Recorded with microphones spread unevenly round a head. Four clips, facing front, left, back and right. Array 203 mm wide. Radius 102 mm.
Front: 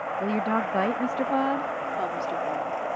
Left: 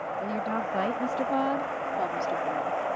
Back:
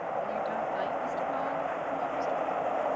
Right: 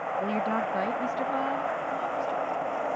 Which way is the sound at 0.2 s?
20° right.